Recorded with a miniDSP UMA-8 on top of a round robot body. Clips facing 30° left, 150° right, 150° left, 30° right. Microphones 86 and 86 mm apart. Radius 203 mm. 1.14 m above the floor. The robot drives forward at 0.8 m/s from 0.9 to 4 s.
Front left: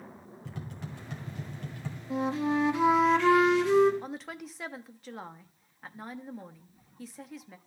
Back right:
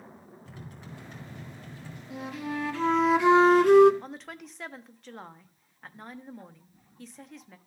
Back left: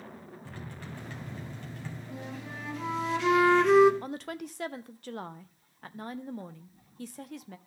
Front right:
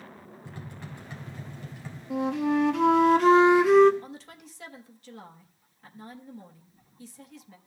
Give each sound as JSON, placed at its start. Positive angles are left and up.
{"t": 0.5, "sound": "tapping", "azimuth_deg": 40, "distance_m": 3.0}
{"t": 2.1, "sound": "a flute", "azimuth_deg": -25, "distance_m": 1.2}
{"t": 4.0, "sound": "a woman speaking", "azimuth_deg": 115, "distance_m": 0.7}